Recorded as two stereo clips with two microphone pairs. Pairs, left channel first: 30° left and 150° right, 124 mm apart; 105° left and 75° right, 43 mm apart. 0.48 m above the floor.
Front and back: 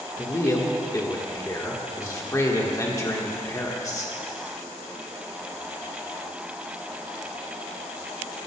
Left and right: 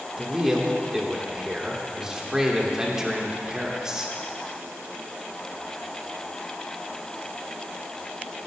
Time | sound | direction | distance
0.2 | a man speaking | 10° right | 1.4 m